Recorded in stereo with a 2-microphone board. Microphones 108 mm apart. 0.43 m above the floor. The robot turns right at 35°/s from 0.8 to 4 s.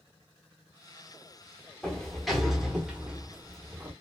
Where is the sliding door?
5° left (ahead or behind), 0.6 m; by 3.9 s 15° right (ahead or behind), 0.6 m.